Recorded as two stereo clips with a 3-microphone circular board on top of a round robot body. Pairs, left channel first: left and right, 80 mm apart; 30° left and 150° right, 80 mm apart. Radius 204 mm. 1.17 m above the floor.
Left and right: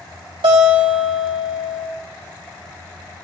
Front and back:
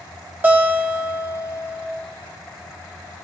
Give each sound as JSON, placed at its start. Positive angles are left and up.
{"t": 0.4, "sound": "a guitar", "azimuth_deg": -85, "distance_m": 1.5}